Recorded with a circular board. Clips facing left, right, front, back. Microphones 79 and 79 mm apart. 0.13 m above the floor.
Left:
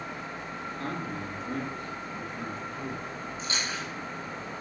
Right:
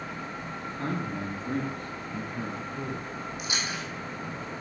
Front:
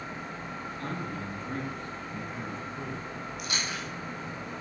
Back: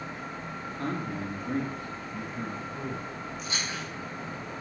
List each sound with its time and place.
0.6 s a man speaking: 145° right, 1.6 m; by 4.4 s 70° right, 2.5 m
3.4 s chewing: 15° right, 2.0 m